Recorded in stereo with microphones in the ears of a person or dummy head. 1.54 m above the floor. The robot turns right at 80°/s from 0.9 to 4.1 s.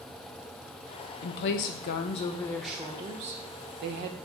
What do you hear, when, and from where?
1.2 s a woman speaking: 65° left, 0.7 m; by 4.2 s 65° right, 0.7 m